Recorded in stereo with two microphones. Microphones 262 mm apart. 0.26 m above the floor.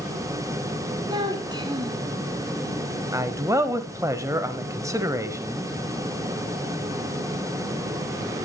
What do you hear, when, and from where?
1.1 s a child speaking: 15° right (ahead or behind), 2 m
3.1 s a man speaking: 10° right (ahead or behind), 1.1 m